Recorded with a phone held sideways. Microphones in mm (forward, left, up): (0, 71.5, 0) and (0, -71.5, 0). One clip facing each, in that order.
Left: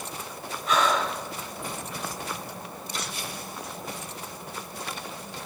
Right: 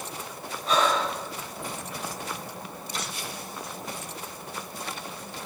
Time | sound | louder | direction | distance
0.7 | breathing | even | 30° right (ahead or behind) | 1.0 m